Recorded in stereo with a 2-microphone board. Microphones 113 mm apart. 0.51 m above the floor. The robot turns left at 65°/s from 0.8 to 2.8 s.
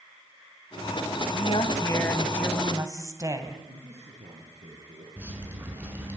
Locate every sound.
1.3 s a woman speaking: 70° left, 3.5 m; by 3.6 s 30° right, 3.5 m
3.7 s a man speaking: 70° right (ahead or behind), 7.5 m
5.2 s dripping: 20° right (ahead or behind), 6 m